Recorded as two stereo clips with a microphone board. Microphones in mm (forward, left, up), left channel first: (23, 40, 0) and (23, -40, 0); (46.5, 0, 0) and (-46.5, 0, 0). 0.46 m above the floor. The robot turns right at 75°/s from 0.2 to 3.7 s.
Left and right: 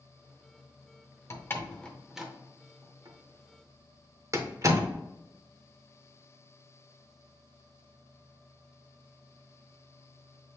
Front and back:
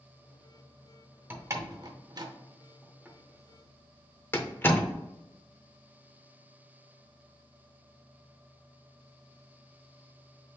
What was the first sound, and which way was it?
A door slam, 125° left.